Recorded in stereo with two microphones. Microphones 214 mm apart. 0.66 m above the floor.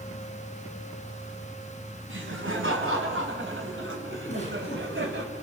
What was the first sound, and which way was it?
Laughter, 65° right (ahead or behind).